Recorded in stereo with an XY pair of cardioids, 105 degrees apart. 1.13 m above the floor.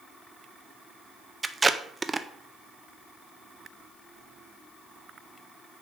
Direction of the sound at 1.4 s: 20° right.